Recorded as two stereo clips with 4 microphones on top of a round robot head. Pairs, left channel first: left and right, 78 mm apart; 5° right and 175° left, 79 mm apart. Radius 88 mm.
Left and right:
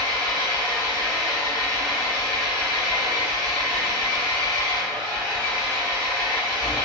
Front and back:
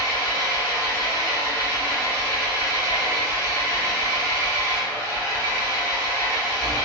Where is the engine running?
25° left, 1.7 m.